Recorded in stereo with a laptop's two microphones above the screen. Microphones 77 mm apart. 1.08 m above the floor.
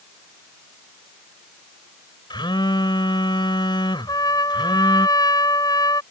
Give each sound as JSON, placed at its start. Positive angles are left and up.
{"t": 2.3, "sound": "a phone buzzing", "side_deg": 80}
{"t": 4.1, "sound": "a trumpet", "side_deg": 55}